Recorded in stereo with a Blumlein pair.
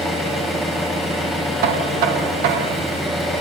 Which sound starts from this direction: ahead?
An engine running, at 0.0 s.